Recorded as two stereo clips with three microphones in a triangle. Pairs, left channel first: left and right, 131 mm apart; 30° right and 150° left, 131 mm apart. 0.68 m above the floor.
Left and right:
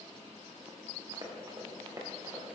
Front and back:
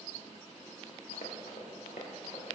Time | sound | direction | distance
1.1 | running footsteps | 35° right | 3.5 m